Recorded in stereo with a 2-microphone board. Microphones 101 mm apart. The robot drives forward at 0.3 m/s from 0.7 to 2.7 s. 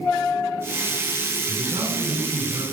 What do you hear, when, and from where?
1.5 s a man speaking: 55° right (ahead or behind), 3 m